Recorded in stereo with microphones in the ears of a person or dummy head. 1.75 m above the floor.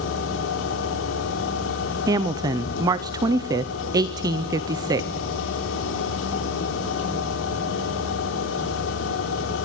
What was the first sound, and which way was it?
A machine running, 70° left (ahead or behind).